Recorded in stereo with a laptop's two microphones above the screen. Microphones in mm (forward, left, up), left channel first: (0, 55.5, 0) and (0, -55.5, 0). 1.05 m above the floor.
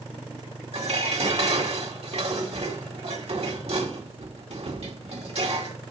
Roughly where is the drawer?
No drawer in this recording.